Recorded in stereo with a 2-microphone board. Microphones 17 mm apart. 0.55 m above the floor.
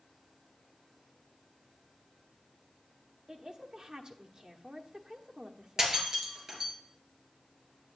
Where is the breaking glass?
35° right (ahead or behind), 3 m.